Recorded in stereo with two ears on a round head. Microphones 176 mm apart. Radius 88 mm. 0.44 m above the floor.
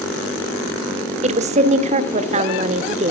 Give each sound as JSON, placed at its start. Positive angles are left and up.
{"t": 1.2, "sound": "a woman speaking", "side_deg": -35, "distance_m": 1.0}